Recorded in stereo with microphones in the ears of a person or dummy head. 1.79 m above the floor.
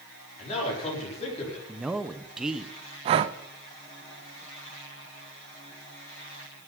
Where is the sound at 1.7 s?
10° right (ahead or behind), 0.7 m.